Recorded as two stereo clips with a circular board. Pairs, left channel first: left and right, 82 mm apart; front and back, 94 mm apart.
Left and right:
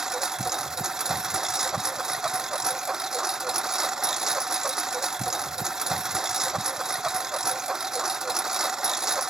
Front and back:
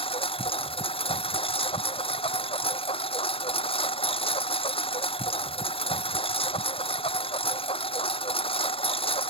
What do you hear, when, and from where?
0.0 s a lawn mower: 5° right